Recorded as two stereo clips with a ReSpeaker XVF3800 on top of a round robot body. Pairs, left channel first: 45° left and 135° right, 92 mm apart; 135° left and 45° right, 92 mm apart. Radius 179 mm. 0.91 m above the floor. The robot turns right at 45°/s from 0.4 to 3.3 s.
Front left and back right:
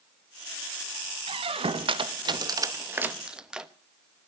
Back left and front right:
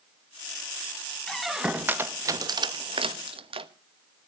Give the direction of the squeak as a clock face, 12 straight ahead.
5 o'clock.